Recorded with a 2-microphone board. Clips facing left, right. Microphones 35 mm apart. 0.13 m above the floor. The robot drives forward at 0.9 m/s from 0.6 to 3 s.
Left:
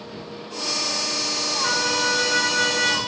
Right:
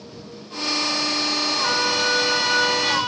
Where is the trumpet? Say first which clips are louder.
Even; centre (ahead or behind), 6.5 m.